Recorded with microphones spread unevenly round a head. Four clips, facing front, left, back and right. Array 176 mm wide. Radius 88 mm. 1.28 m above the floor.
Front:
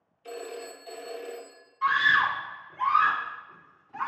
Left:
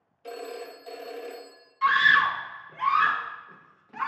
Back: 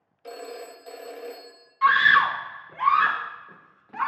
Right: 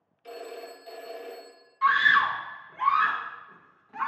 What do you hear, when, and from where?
0.2 s a phone ringing: 140° left, 1.2 m
1.8 s a scream: 165° left, 0.7 m